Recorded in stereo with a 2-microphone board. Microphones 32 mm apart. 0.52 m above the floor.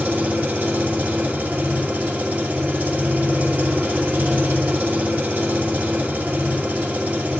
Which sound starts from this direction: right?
An engine running, at 0.0 s.